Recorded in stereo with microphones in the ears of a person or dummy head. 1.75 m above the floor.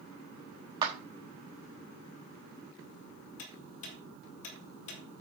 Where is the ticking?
65° left (ahead or behind), 2.5 m.